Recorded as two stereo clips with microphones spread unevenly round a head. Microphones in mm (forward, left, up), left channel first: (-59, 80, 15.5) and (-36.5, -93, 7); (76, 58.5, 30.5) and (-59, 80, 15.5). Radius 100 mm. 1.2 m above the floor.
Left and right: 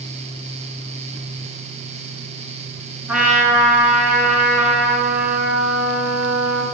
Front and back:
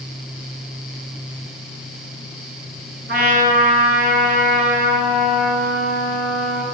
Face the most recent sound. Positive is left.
turn(degrees=-165)